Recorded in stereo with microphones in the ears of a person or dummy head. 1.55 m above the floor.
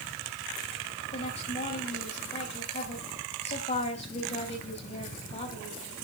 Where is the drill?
No drill in this recording.